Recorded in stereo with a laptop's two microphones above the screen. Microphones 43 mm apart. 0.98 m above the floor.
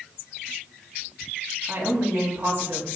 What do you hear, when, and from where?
1.7 s a woman speaking: 70° right (ahead or behind), 6.5 m